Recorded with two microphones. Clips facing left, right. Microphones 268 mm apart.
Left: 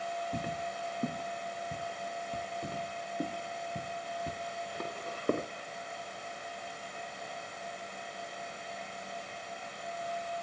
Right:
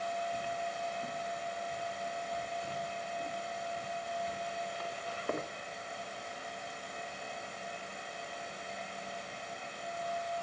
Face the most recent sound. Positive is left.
turn(degrees=40)  # may be behind; listen again after turning